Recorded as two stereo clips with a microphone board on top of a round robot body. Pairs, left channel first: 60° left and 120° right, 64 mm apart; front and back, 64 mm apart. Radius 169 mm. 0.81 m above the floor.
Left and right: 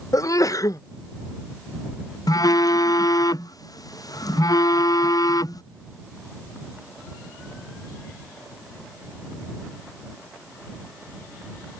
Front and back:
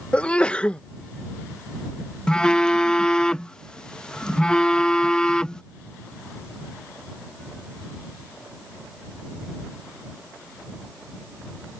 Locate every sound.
0.1 s a sneeze: 70° left
2.3 s a phone buzzing: 75° left